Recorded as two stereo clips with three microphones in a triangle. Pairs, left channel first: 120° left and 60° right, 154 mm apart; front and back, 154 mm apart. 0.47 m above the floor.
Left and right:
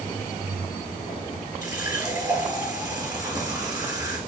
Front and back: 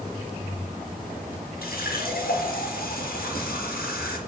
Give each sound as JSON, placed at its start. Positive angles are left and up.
{"t": 1.6, "sound": "a running tap", "azimuth_deg": 10, "distance_m": 4.5}